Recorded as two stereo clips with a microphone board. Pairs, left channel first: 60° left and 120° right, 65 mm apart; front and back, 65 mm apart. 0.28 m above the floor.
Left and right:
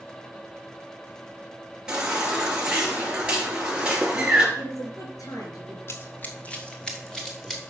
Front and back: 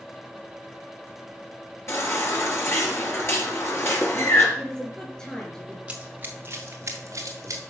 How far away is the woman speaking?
About 5 m.